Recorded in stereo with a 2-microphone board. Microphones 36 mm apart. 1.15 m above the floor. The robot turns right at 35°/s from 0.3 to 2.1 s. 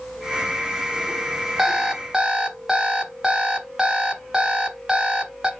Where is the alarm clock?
10° right (ahead or behind), 0.8 m; by 5.5 s 20° right (ahead or behind), 0.8 m.